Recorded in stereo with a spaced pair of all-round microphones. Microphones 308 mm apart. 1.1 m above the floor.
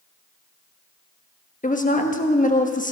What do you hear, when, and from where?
1.6 s a woman speaking: 25° left (ahead or behind), 1.2 m